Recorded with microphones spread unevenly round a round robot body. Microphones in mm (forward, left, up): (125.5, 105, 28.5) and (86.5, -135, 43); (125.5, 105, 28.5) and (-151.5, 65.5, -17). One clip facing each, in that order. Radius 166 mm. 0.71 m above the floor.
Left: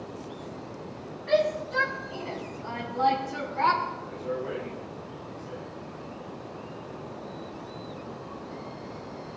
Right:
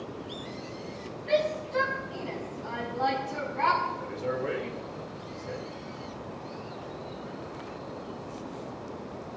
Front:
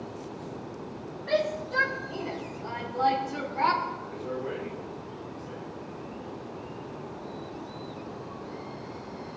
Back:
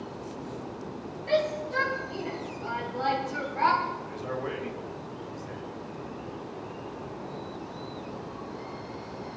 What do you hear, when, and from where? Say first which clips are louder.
1.3 s a shout: left 2 dB, back 1 dB; 105° left, 5 m; by 3.8 s 125° left, 5 m
4.0 s a man speaking: right 2 dB, even; 140° right, 3 m